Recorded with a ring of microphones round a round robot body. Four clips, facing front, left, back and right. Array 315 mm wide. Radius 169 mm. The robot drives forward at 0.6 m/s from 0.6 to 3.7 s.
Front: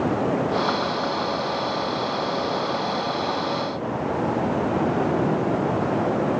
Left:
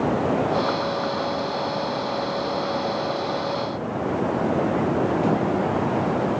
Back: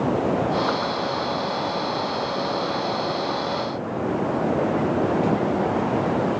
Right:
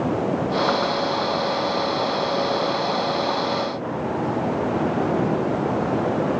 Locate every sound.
Only background noise.